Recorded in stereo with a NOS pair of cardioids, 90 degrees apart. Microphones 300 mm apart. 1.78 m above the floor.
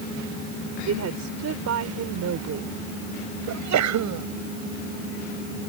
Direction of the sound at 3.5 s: 65° right.